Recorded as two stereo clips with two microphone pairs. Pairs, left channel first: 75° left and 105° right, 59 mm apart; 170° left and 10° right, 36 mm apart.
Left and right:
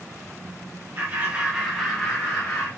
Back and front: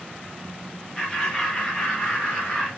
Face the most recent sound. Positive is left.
turn(degrees=110)